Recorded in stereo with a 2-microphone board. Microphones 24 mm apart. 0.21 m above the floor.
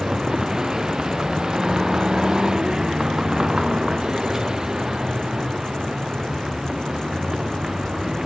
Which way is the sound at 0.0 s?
25° right (ahead or behind).